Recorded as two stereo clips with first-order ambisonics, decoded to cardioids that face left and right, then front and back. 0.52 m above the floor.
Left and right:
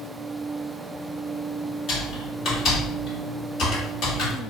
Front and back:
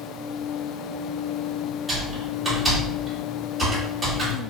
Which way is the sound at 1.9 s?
105° left.